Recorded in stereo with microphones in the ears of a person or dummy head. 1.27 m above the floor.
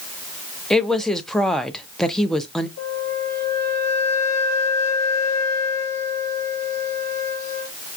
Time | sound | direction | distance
0.7 | a woman speaking | 5° left (ahead or behind) | 0.7 m
2.8 | a flute | 75° left (ahead or behind) | 1.3 m